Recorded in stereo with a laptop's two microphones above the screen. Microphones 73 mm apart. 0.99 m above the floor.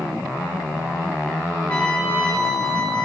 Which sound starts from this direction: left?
A trumpet, at 1.7 s.